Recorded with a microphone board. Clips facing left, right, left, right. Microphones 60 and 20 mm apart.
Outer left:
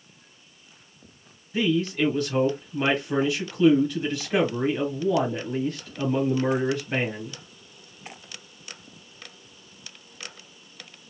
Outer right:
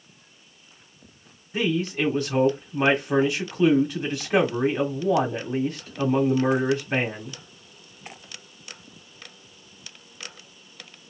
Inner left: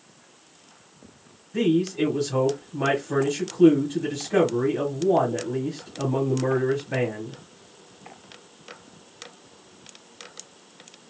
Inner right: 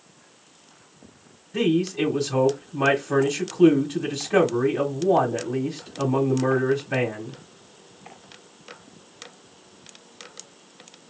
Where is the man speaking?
25° right (ahead or behind), 1.0 m.